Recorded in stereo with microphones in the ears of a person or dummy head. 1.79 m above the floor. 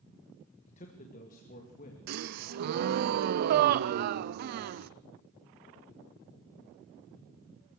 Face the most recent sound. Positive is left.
turn(degrees=-55)  # may be behind; listen again after turning